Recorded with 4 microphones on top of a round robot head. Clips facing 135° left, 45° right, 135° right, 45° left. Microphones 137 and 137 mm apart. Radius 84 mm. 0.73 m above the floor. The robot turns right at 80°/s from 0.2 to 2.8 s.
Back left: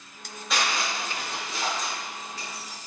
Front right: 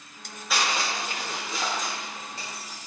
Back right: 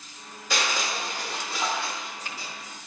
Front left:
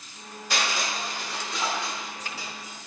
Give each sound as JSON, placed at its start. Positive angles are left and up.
{"t": 0.5, "sound": "crushing", "azimuth_deg": -135, "distance_m": 0.8}